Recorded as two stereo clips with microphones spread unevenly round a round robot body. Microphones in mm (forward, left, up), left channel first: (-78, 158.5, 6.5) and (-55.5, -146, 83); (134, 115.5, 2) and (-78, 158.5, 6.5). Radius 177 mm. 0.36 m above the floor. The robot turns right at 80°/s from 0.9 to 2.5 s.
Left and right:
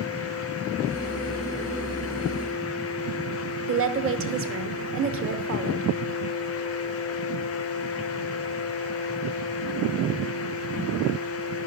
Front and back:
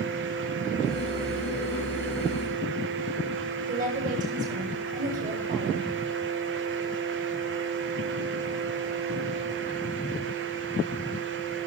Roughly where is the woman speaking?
Behind right.